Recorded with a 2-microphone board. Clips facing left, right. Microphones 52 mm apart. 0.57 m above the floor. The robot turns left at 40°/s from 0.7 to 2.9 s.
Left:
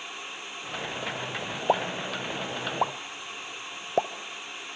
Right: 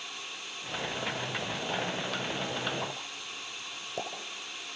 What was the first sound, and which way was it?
A pop, 75° left (ahead or behind).